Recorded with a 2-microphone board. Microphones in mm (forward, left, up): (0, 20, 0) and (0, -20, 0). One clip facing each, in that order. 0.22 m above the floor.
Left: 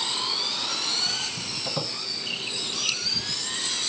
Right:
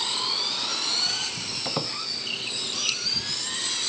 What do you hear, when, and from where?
1.6 s a squeak: 30° right (ahead or behind), 0.5 m